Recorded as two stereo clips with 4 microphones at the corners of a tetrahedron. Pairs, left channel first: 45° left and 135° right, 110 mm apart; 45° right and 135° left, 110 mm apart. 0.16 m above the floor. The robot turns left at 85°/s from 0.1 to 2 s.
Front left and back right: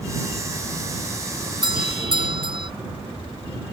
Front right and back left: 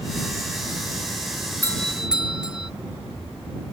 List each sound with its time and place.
1.6 s a doorbell: 110° right; by 2.7 s 145° right